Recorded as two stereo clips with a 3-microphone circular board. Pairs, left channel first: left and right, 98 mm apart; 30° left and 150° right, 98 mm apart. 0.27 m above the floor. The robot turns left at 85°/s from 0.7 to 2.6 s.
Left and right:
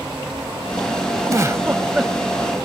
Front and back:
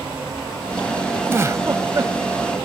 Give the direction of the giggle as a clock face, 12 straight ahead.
3 o'clock.